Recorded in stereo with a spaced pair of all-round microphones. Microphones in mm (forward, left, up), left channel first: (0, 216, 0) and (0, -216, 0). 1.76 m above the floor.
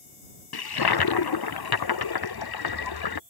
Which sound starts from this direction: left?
A toilet flushing, at 0.5 s.